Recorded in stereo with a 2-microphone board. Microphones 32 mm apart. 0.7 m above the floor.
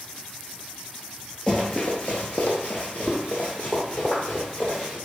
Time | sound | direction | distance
1.5 | running footsteps | 30° left (ahead or behind) | 0.9 m